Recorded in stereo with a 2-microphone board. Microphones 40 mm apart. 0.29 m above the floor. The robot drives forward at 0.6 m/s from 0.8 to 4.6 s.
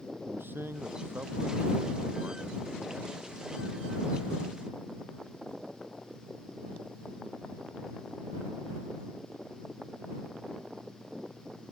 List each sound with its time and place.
0.3 s a man speaking: 70° right (ahead or behind); by 2.6 s 75° right (ahead or behind)